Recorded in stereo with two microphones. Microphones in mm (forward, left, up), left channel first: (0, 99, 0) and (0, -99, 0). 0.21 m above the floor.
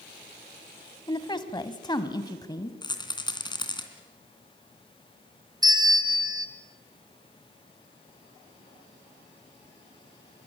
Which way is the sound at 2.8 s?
20° left (ahead or behind).